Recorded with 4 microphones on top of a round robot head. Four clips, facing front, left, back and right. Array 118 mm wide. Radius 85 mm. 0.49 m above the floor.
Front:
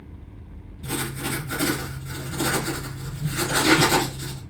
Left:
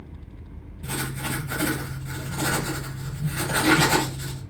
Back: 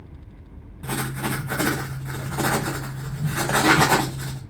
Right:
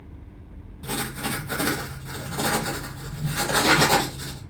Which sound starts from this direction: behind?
Writing, at 0.8 s.